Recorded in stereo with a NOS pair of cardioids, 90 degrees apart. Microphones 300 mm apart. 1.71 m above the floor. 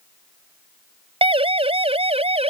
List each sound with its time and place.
1.2 s a siren: 20° right